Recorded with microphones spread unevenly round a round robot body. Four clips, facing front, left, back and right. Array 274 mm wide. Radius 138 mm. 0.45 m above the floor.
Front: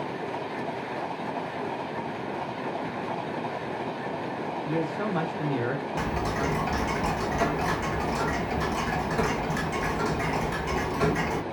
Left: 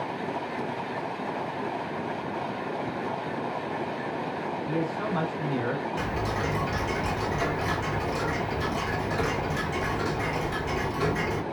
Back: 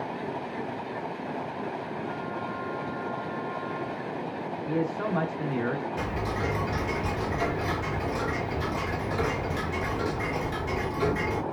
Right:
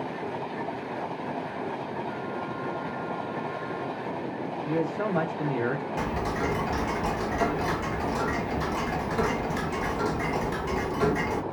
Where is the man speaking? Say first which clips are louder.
Right 3 dB, back 1 dB; 80° right, 0.8 m.